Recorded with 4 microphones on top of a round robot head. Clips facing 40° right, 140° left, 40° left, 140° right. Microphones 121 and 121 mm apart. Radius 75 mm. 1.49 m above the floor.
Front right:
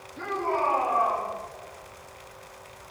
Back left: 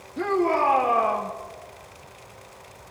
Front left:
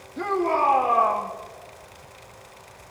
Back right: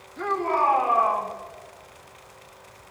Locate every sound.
0.2 s a shout: 95° left, 3 m; by 1.3 s 115° left, 2.5 m